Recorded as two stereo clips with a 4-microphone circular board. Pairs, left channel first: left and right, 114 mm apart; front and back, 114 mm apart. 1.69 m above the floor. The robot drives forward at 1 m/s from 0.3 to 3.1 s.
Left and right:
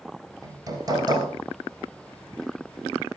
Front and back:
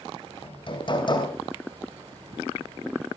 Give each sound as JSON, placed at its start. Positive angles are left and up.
{"t": 0.4, "sound": "hammering", "azimuth_deg": -35, "distance_m": 3.5}